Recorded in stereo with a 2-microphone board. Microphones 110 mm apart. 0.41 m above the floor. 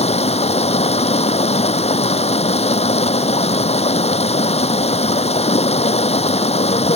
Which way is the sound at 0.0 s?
75° left (ahead or behind).